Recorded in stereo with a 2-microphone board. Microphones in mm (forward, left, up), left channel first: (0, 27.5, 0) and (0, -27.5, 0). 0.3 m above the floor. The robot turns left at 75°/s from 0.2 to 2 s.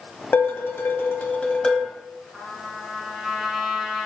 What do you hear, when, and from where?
0.3 s dishes clattering: 120° left, 1.2 m; by 1.9 s straight ahead, 1.2 m
2.3 s a trumpet: 5° right (ahead or behind), 1.4 m